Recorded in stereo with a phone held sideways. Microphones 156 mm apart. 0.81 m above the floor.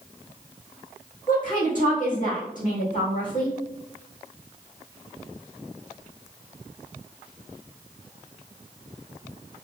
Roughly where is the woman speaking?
Left.